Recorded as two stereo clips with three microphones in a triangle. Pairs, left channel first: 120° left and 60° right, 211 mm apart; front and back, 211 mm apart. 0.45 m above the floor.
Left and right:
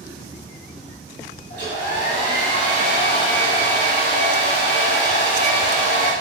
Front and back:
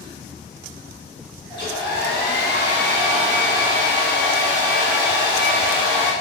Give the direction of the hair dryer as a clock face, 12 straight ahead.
8 o'clock.